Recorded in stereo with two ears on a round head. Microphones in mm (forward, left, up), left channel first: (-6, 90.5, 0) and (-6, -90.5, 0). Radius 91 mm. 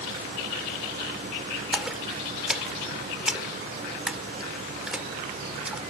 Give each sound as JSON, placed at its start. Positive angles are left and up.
{"t": 1.7, "sound": "a splash", "side_deg": -5}